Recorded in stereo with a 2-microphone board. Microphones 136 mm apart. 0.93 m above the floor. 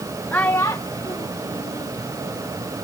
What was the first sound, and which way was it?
A child speaking, 10° left (ahead or behind).